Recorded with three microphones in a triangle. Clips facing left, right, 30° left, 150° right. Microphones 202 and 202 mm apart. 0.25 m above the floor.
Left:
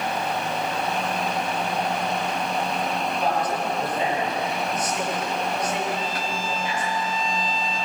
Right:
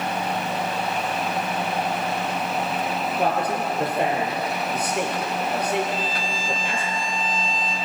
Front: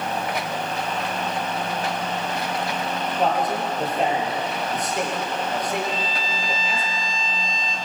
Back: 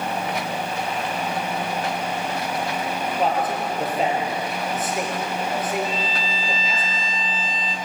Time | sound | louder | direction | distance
3.2 | a man speaking | right 3 dB, front 1 dB | 60° right | 6.5 m
5.8 | a violin | even, back 1 dB | 75° left | 4.5 m